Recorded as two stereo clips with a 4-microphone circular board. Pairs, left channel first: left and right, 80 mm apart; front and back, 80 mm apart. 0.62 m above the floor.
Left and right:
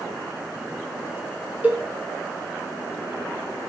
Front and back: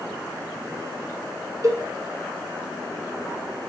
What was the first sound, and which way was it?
A cowbell, 150° right.